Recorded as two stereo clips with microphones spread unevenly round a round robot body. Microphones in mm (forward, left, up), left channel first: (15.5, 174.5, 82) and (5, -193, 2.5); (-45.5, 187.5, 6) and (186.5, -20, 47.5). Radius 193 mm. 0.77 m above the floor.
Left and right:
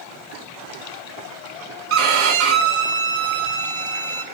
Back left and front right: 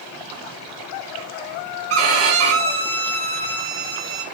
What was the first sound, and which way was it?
A violin, 35° right.